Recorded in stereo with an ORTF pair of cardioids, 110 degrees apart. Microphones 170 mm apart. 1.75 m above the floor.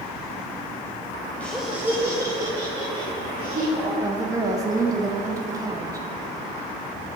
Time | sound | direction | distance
1.4 | laughter | 10° left | 1.0 m
4.0 | a woman speaking | 20° right | 2 m